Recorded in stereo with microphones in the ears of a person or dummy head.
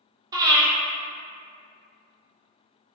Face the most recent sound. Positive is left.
turn(degrees=-20)  # may be behind; listen again after turning